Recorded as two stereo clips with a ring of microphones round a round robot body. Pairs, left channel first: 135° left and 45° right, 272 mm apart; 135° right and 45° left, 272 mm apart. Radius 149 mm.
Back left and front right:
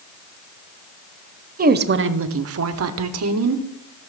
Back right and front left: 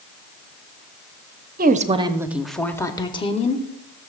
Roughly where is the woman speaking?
Ahead.